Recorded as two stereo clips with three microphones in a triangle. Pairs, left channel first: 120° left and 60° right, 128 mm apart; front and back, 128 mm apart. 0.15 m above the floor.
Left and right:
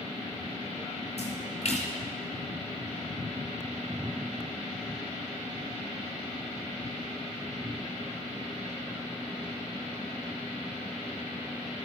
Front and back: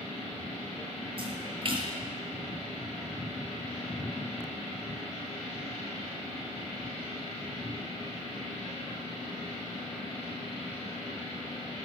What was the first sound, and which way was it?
A splash, 145° left.